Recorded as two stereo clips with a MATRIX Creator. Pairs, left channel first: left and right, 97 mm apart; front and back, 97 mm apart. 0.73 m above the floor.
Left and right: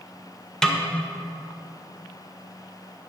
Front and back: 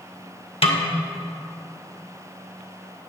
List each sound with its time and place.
0.6 s a snare drum: 5° left, 0.8 m